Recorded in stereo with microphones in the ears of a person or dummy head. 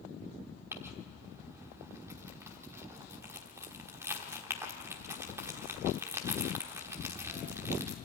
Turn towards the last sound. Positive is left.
turn(degrees=-15)  # may be behind; listen again after turning